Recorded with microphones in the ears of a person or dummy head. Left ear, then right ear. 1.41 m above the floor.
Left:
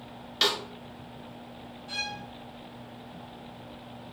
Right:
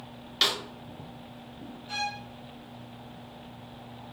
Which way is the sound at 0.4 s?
Centre (ahead or behind).